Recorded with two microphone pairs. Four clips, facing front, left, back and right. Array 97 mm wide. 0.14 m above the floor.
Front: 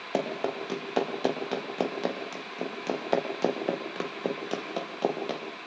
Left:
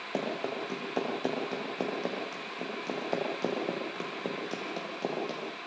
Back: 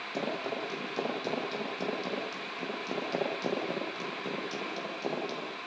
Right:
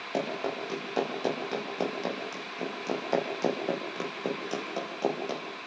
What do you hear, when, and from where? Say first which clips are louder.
0.1 s running footsteps: right 2 dB, front 5 dB; 5° right, 9.5 m; by 5.6 s 25° right, 8 m